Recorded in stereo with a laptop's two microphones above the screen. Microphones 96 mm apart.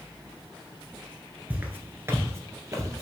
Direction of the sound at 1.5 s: 15° right (ahead or behind).